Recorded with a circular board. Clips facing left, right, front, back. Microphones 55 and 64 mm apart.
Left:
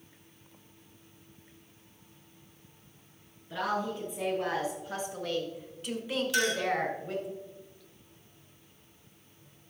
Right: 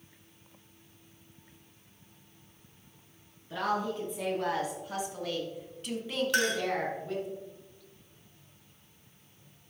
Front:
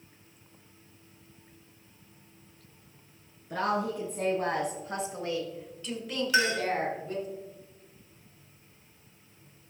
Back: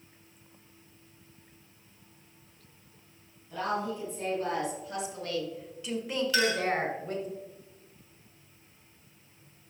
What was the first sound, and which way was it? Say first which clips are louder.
A woman speaking: right 1 dB, front 3 dB; 10° right.